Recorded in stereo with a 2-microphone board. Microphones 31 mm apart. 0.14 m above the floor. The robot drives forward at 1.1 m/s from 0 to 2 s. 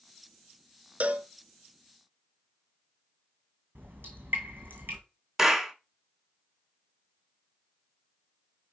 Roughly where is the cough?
I don't hear a cough.